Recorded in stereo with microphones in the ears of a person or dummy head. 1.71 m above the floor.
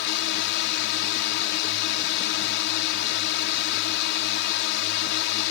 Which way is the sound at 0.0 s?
65° left (ahead or behind).